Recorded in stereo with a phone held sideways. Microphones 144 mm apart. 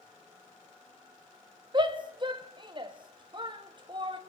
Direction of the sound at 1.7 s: 35° right (ahead or behind).